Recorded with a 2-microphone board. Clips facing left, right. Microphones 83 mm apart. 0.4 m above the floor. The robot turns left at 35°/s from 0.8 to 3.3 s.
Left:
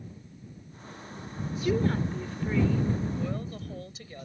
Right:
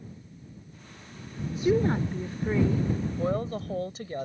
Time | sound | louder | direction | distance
1.5 | a woman speaking | right 3 dB | 15° right (ahead or behind) | ?
3.2 | a woman speaking | right 6 dB | 45° right (ahead or behind) | ?